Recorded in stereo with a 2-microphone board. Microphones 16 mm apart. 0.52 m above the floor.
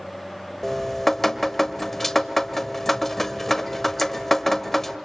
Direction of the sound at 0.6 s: 15° left (ahead or behind).